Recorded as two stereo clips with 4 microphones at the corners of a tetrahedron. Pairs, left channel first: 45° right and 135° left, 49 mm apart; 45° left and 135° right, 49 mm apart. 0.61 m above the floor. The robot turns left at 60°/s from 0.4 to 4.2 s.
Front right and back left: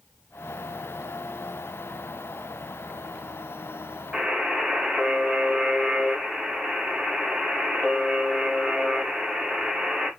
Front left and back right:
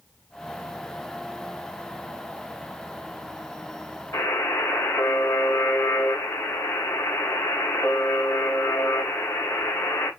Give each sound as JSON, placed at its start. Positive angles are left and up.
{"t": 4.1, "sound": "a buzzer", "azimuth_deg": 60, "distance_m": 4.0}